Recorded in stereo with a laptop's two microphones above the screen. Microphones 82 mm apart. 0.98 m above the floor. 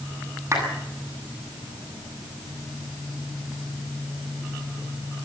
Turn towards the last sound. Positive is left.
turn(degrees=-35)  # may be behind; listen again after turning